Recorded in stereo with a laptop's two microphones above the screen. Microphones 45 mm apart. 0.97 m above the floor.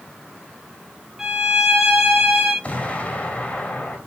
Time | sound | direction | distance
1.2 | a violin | 10° right (ahead or behind) | 4.5 m
2.6 | an explosion | 30° left (ahead or behind) | 4 m